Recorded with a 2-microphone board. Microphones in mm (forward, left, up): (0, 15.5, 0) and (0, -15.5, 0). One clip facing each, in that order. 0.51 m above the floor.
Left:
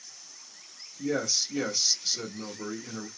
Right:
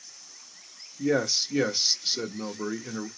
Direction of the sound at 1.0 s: 30° right (ahead or behind).